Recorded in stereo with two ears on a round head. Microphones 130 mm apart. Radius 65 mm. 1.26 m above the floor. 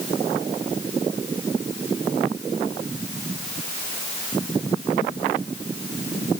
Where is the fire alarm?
I don't hear a fire alarm.